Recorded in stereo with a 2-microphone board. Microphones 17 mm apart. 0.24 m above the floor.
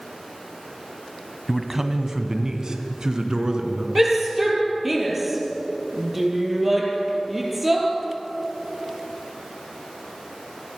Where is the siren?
I don't hear a siren.